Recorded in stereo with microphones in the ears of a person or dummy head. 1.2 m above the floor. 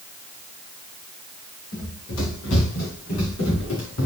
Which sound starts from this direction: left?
Running footsteps, at 1.7 s.